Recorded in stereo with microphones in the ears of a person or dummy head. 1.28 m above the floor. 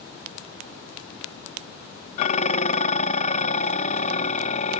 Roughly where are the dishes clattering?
Left.